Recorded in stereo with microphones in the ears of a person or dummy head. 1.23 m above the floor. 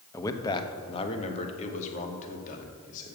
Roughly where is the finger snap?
I don't hear a finger snap.